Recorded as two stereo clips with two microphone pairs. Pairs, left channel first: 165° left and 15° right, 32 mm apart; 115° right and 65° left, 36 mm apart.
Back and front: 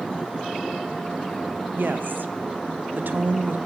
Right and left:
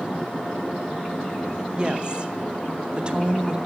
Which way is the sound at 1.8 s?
5° right.